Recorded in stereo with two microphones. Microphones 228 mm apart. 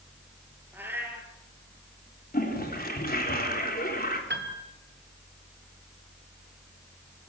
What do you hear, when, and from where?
0.7 s a cat meowing: 10° right (ahead or behind), 4.5 m
2.3 s a toilet flushing: 40° left (ahead or behind), 3.5 m
4.3 s a piano: 50° right (ahead or behind), 2.5 m